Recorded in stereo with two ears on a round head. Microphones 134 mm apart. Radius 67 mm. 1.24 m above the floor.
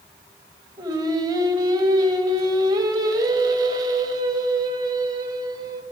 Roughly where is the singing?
Right.